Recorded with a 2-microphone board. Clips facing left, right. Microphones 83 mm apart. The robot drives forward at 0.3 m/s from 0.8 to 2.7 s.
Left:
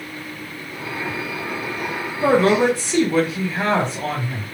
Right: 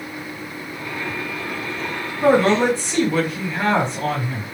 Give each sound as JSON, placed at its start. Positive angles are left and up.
{"t": 2.2, "sound": "a man speaking", "side_deg": 10, "distance_m": 2.5}